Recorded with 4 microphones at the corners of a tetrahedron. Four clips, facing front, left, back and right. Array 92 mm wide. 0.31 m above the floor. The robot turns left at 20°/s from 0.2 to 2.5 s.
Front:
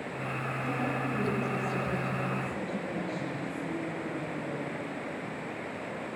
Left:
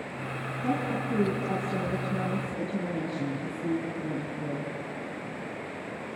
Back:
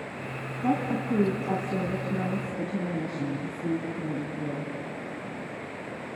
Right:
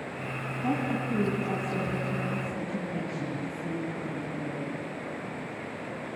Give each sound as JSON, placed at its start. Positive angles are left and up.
{"t": 0.6, "sound": "a woman speaking", "azimuth_deg": -165, "distance_m": 2.5}